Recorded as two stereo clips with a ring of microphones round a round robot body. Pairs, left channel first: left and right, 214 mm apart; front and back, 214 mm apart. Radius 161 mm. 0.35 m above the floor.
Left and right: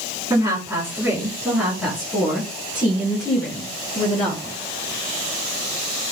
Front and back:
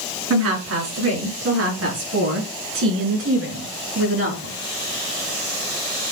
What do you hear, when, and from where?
0.3 s a woman speaking: 170° right, 5 m; by 4.6 s 160° left, 6 m